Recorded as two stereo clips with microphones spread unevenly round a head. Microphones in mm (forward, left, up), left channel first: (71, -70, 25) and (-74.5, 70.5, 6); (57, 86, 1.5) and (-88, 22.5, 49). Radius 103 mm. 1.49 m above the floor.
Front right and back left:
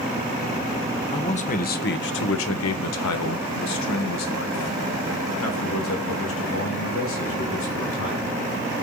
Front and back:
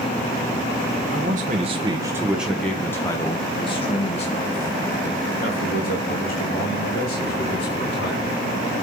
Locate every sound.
1.1 s a man speaking: 110° right, 1.1 m; by 8.4 s 10° right, 4 m